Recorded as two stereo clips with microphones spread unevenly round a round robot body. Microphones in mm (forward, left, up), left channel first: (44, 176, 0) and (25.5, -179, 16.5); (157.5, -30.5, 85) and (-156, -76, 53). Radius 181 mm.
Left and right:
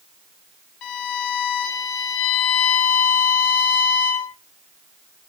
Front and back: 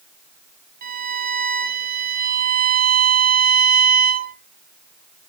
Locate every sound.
0.8 s a violin: 125° left, 2.5 m